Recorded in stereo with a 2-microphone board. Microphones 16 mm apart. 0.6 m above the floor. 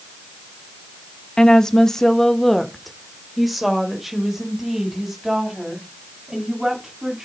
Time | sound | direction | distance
1.4 | a woman speaking | 50° left (ahead or behind) | 1.1 m